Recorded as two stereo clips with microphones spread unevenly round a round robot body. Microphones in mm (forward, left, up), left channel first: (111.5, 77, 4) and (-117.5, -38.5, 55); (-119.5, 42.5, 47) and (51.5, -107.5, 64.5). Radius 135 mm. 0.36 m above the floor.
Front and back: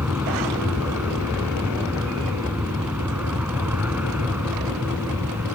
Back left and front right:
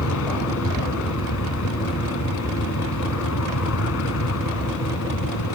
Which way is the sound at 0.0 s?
125° left.